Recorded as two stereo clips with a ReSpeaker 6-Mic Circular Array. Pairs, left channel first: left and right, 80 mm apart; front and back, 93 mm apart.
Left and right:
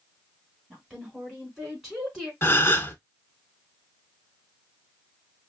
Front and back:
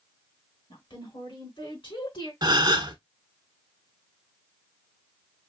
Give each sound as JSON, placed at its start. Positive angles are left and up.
{"t": 0.7, "sound": "a woman speaking", "azimuth_deg": -10, "distance_m": 3.0}
{"t": 2.4, "sound": "a gasp", "azimuth_deg": 145, "distance_m": 0.6}